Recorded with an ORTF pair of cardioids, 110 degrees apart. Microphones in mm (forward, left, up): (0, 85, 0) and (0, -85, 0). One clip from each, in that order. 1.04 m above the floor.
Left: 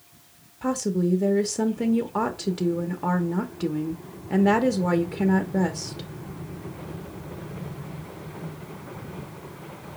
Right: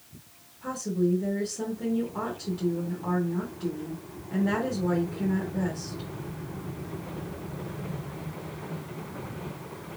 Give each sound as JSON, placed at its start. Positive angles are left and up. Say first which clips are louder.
{"t": 0.6, "sound": "a woman speaking", "louder": "left 3 dB", "azimuth_deg": 65, "distance_m": 0.8}